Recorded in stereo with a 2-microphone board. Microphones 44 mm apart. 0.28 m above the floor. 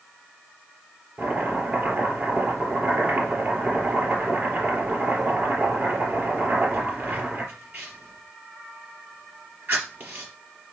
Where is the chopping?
40° right (ahead or behind), 4 m.